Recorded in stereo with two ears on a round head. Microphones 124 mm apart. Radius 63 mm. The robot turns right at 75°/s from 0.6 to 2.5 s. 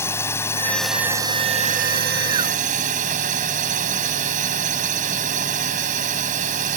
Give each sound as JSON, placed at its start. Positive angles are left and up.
{"t": 0.0, "sound": "a drone", "azimuth_deg": 160}